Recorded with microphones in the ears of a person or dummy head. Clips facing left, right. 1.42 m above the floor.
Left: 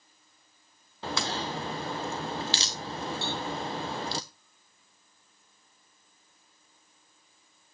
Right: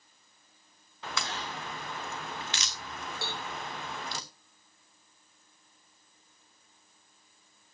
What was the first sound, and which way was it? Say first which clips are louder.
A crack: left 5 dB; 30° left (ahead or behind).